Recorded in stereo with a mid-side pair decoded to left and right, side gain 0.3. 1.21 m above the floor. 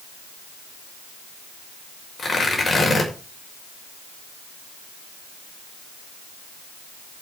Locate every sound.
2.2 s tearing paper: 40° left, 6 m